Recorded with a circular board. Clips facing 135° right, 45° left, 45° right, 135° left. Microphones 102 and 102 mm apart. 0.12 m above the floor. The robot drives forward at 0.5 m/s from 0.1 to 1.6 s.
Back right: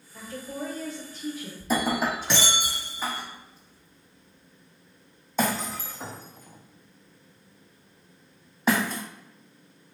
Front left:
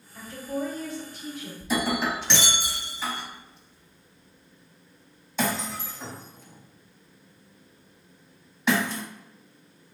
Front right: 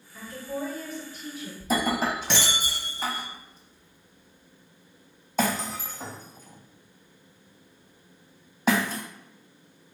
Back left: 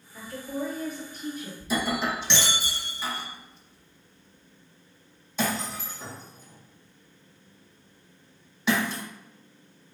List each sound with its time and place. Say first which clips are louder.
0.1 s a woman speaking: front left 4 dB, back left 1 dB; 165° right, 1.6 m; by 1.5 s 170° right, 2 m
1.6 s breaking glass: back right 1 dB, front right 2 dB; 90° right, 0.7 m